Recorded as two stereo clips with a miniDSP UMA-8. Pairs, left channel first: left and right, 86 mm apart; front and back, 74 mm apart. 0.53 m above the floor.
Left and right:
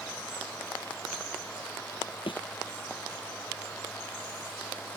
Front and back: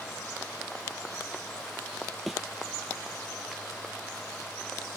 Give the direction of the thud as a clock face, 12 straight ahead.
9 o'clock.